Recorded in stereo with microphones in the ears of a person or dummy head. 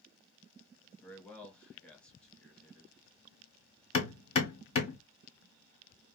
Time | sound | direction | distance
1.0 | a man speaking | 5° left (ahead or behind) | 1.2 m
3.9 | hammering | 35° left (ahead or behind) | 1.7 m